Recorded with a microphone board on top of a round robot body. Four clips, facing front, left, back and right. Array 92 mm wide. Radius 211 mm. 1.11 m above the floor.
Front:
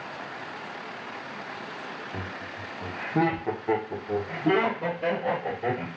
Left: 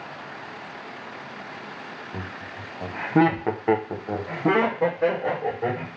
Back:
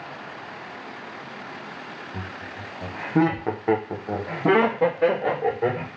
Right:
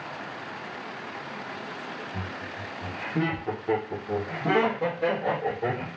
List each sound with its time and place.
2.1 s laughter: 60° left, 1.0 m; by 5.9 s 165° left, 1.9 m